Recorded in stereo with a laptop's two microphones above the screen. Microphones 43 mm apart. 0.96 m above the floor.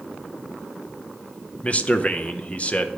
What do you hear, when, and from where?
1.6 s a man speaking: 30° left (ahead or behind), 0.7 m